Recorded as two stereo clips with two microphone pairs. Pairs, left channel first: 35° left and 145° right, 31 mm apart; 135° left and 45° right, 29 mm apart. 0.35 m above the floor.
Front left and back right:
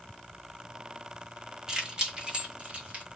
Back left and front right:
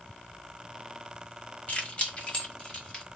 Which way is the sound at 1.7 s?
155° left.